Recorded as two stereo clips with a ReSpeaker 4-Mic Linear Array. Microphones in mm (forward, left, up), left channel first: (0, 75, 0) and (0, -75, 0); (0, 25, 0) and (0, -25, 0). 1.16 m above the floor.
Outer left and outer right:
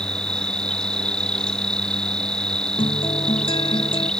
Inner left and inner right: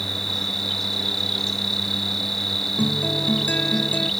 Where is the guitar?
35° left (ahead or behind).